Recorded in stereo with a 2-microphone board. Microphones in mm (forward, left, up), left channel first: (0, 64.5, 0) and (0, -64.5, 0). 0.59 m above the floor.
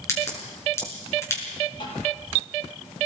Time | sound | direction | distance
0.1 | a crack | 20° left (ahead or behind) | 6.5 m
1.8 | tapping | 40° left (ahead or behind) | 9 m